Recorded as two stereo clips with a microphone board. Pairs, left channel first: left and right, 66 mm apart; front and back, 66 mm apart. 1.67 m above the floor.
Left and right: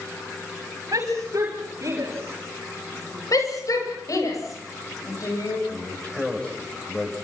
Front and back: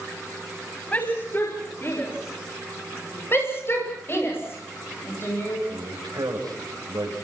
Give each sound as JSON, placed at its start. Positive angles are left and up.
{"t": 0.9, "sound": "a shout", "azimuth_deg": -65, "distance_m": 6.0}
{"t": 3.3, "sound": "a shout", "azimuth_deg": 55, "distance_m": 9.0}
{"t": 5.7, "sound": "a man speaking", "azimuth_deg": 165, "distance_m": 8.5}